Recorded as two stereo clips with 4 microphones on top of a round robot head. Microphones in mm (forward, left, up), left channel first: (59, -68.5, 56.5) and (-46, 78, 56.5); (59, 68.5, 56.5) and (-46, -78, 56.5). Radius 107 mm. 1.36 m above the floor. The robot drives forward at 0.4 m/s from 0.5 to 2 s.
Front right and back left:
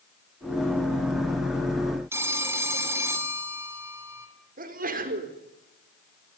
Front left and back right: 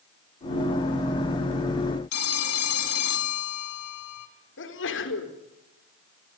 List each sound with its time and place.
2.1 s a phone ringing: 50° left, 2.5 m
4.6 s a sneeze: 80° left, 4 m